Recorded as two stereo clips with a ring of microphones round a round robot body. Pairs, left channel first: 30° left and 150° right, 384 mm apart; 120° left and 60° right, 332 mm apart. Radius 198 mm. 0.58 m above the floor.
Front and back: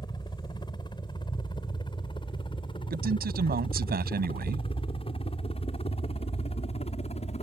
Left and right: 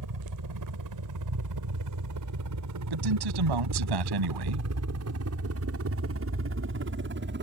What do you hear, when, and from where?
0.0 s a helicopter: 50° right; by 7.4 s 35° right
2.9 s a man speaking: 85° right